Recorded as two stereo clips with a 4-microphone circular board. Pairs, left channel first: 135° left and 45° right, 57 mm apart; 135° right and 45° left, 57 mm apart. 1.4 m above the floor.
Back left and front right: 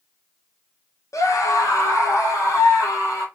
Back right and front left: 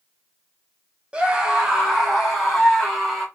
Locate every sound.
1.1 s a scream: 115° left, 1.2 m; by 3.2 s 135° left, 3.5 m